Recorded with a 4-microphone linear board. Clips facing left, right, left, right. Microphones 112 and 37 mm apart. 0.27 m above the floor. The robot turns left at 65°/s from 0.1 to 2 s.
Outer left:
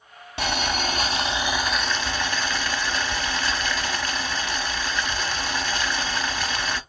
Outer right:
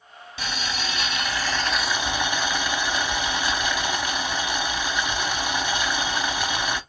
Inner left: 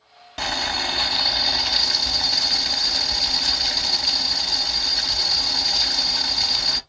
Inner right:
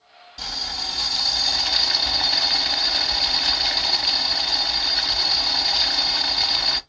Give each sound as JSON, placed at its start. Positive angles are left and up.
{"t": 0.4, "sound": "boiling", "azimuth_deg": 90, "distance_m": 0.5}